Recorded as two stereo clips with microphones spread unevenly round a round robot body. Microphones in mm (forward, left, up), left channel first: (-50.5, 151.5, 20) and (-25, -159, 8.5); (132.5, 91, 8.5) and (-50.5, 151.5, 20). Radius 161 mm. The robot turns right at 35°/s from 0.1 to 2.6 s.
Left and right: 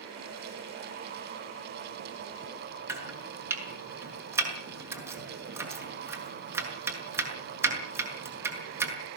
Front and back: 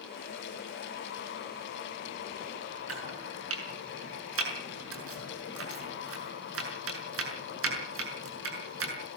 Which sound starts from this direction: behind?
Chopping, at 2.9 s.